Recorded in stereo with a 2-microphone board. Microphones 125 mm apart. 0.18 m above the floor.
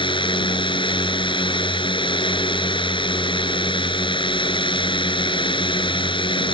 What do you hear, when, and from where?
0.0 s a drone: 40° left (ahead or behind)